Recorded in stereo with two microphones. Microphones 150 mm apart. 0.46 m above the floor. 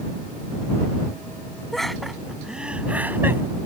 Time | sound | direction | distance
1.7 | laughter | centre (ahead or behind) | ?